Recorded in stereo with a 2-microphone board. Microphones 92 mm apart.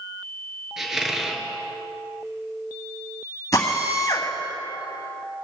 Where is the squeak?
5° right (ahead or behind), 1.5 m.